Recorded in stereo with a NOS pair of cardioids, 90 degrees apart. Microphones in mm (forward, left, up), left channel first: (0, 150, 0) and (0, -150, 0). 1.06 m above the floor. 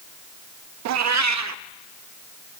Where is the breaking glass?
No breaking glass in this recording.